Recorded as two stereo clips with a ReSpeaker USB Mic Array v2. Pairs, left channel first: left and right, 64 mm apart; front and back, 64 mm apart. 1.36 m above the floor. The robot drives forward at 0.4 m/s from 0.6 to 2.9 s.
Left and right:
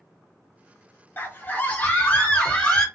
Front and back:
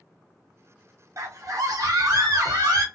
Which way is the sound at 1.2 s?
150° left.